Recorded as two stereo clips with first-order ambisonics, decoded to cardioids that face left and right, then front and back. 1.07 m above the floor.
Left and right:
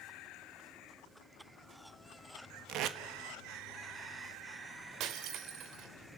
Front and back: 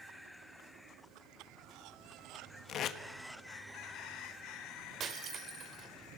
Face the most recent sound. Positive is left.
turn(degrees=-125)